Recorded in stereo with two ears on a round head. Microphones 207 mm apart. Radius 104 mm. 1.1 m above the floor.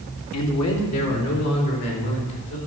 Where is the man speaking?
75° left (ahead or behind), 2.0 m; by 2.6 s 70° left (ahead or behind), 4.5 m.